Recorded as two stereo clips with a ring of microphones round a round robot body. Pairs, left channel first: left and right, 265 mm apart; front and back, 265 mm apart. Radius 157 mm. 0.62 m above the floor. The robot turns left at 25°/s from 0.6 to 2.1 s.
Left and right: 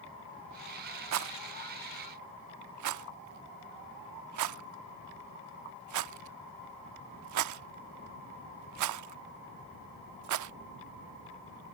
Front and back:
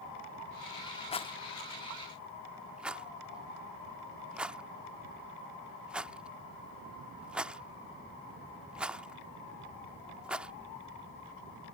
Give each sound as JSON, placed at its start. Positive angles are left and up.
{"t": 1.1, "sound": "a rattle", "azimuth_deg": -70}